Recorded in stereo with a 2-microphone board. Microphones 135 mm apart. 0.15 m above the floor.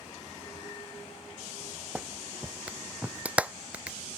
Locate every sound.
1.9 s a clap: 10° right (ahead or behind)